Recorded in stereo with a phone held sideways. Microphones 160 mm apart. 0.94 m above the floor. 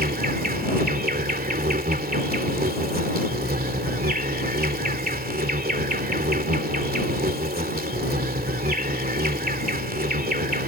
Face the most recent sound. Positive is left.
turn(degrees=-85)